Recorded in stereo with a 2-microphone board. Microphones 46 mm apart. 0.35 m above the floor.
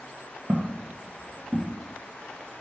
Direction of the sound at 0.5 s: 45° right (ahead or behind).